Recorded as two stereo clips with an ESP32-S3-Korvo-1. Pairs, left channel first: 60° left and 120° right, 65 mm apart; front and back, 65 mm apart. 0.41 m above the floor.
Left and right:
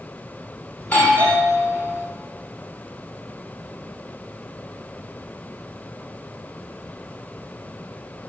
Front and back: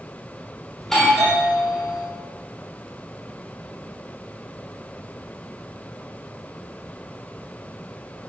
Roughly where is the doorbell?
Left.